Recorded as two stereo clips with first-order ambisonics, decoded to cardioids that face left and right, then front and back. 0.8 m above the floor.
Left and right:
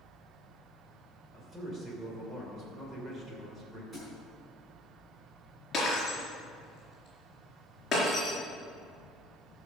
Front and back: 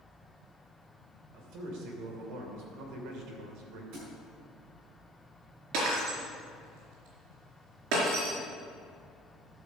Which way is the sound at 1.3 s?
170° right.